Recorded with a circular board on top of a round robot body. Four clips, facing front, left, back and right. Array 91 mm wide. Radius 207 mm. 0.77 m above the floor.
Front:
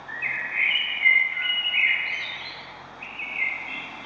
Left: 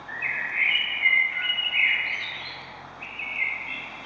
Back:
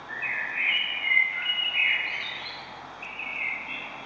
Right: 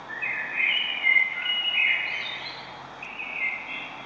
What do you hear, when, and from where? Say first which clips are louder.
0.1 s a bird: left 2 dB, front 1 dB; 50° left, 1.4 m